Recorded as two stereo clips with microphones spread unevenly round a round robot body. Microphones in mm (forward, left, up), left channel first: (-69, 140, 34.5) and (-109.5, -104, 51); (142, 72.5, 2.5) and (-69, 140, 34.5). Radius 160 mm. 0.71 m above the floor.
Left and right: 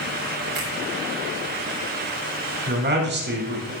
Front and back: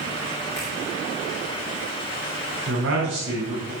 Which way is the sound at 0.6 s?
100° right.